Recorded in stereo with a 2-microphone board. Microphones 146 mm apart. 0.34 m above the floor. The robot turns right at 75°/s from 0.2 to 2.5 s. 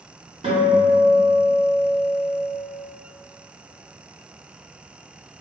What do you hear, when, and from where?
0.4 s a guitar: 45° right, 0.8 m; by 2.4 s 100° left, 0.8 m